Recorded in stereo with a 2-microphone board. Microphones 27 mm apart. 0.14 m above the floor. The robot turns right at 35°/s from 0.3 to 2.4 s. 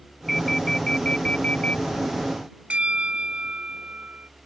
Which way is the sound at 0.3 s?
5° left.